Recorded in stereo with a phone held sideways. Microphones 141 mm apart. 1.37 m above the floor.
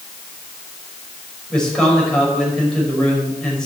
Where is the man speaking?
5° left (ahead or behind), 5.5 m.